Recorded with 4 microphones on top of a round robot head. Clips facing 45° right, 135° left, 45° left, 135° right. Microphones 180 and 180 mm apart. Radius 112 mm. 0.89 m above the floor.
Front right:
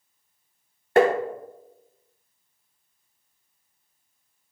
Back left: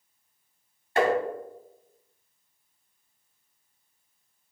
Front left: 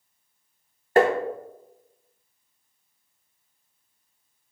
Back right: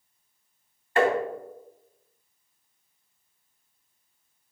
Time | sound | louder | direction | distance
1.0 | tapping | front right 5 dB, front left 4 dB | 5° right | 0.8 m